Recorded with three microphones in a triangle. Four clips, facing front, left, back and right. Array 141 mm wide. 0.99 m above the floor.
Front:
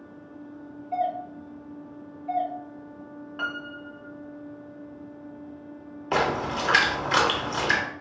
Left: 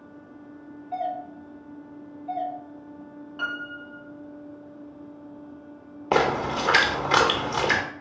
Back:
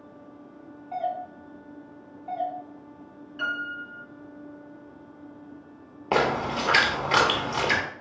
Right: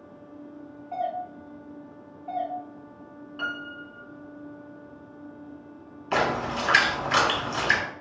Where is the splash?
110° left, 0.7 m.